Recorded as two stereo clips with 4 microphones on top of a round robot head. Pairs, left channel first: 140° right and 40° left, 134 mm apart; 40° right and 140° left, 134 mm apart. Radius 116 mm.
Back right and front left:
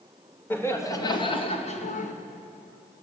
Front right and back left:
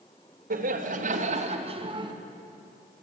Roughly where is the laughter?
Behind left.